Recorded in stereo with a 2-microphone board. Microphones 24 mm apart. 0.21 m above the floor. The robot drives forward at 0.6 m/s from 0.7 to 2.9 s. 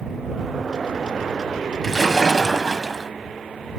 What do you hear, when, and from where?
1.8 s a splash: 15° left (ahead or behind), 1.1 m